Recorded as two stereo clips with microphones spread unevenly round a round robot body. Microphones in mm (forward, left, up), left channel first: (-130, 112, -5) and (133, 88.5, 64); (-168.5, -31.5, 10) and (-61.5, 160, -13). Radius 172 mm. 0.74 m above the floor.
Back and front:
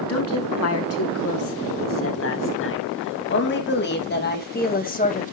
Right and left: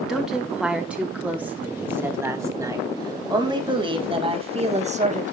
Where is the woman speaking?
150° left, 6 m; by 5.3 s 115° left, 4 m.